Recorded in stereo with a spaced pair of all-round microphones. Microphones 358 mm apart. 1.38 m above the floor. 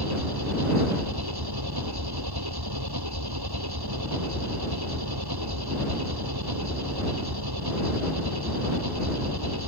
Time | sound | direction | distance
0.0 | an engine running | 80° right | ?